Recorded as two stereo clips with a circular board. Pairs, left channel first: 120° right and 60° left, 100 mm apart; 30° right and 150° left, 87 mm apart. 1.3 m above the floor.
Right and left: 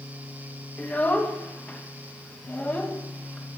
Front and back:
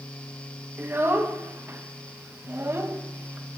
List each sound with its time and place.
0.8 s a child speaking: straight behind, 0.5 m